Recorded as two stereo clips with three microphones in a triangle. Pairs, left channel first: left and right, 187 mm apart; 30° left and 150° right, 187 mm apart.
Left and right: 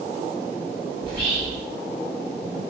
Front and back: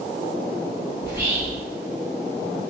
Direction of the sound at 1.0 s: 75° right.